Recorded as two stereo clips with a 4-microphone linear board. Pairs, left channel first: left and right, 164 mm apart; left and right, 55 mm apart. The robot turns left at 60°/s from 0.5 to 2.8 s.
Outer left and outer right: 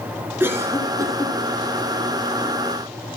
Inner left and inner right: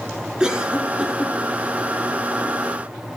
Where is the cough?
15° right (ahead or behind), 1.5 m; by 1.4 s 20° right (ahead or behind), 1.5 m.